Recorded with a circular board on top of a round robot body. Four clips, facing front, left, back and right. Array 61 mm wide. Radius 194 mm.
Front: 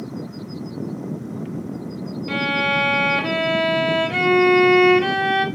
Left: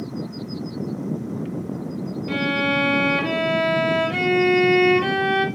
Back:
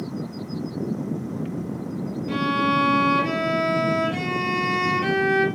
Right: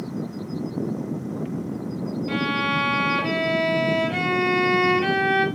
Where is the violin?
10° left, 1.1 m.